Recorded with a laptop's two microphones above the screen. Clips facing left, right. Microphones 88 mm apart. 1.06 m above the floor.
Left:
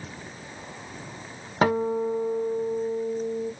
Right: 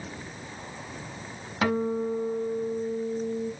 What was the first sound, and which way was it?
A guitar, 40° left (ahead or behind).